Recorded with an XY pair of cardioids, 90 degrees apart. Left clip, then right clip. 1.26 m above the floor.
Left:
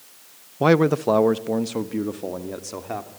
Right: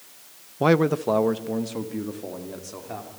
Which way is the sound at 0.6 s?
15° left.